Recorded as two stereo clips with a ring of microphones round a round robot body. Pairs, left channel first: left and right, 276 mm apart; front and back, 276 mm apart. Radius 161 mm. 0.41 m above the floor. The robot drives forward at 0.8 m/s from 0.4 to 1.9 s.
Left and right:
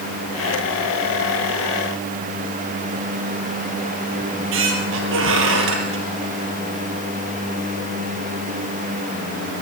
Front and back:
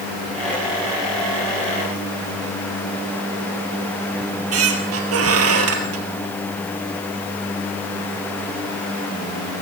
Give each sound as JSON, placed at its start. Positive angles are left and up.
{"t": 4.2, "sound": "a squeak", "azimuth_deg": -140, "distance_m": 3.0}